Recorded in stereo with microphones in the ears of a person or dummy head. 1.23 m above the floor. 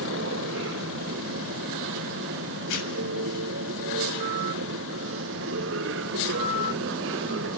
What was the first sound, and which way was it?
A machine running, 65° right (ahead or behind).